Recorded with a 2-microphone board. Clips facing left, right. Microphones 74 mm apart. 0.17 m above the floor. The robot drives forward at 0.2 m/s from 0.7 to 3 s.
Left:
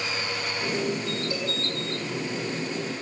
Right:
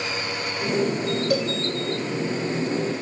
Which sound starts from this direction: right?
A cowbell, at 1.3 s.